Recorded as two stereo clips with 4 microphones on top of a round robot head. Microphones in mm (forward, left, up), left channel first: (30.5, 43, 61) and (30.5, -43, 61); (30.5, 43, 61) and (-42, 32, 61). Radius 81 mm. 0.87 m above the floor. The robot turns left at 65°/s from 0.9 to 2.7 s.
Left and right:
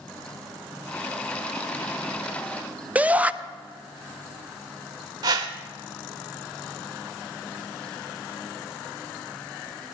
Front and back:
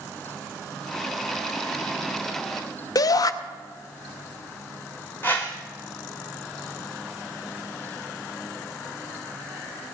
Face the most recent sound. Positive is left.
turn(degrees=-65)